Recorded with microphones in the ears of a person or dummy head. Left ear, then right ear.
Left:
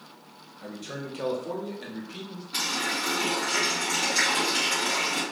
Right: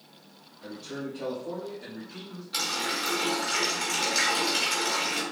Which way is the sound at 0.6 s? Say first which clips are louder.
Even; 25° left (ahead or behind).